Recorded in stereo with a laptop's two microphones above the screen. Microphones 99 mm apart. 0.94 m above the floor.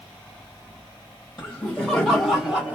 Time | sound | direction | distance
1.4 | laughter | 20° left (ahead or behind) | 1.1 m